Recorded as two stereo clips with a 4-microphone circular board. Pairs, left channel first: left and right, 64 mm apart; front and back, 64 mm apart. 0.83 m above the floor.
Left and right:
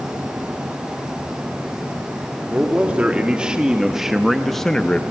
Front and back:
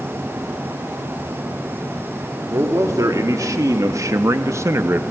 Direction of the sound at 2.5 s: 155° right.